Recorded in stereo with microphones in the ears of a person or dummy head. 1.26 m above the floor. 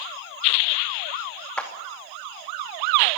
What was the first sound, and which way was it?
A clap, 15° left (ahead or behind).